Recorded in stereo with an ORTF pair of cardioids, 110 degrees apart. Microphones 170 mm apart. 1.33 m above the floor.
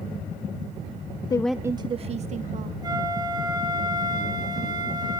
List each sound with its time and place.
1.3 s a woman speaking: 25° left, 0.6 m; by 2.7 s 55° right, 1.9 m
2.8 s a flute: 25° right, 6.5 m